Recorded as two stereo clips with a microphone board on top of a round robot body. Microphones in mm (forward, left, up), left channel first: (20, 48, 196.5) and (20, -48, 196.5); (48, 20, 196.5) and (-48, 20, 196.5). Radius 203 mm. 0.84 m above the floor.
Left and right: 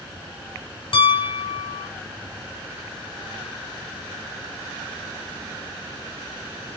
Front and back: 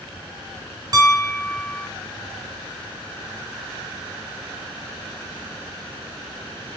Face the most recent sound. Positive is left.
turn(degrees=130)